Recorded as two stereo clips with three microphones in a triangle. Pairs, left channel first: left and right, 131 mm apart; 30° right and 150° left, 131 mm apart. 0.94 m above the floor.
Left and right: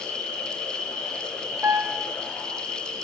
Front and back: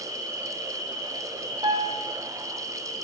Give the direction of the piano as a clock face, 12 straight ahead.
5 o'clock.